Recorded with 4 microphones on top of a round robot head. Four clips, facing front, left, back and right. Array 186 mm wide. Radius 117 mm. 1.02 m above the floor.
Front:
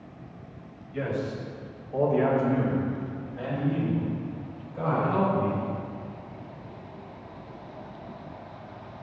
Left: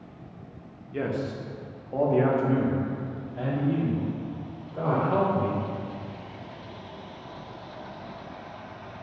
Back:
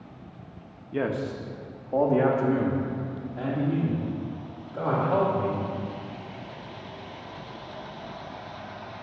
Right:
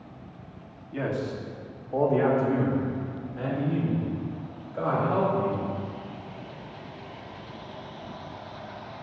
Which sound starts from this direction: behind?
A man speaking, at 0.9 s.